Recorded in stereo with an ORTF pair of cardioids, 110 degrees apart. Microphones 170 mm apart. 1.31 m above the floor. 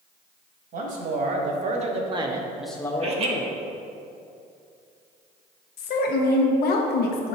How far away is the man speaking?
About 1.8 m.